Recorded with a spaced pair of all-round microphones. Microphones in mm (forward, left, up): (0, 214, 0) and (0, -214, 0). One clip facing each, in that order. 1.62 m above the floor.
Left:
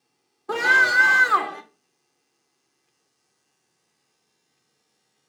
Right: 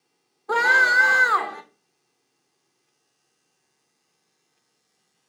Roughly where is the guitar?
No guitar in this recording.